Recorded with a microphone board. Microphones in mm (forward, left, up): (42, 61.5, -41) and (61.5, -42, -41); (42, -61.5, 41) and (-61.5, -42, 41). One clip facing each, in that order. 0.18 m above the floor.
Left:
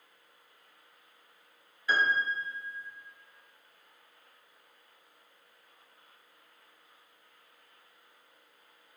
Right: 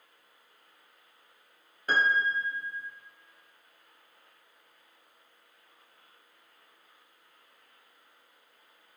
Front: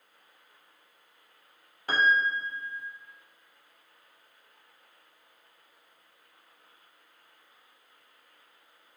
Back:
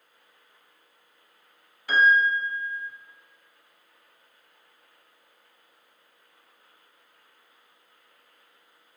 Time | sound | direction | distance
1.9 | a piano | 55° right | 0.5 m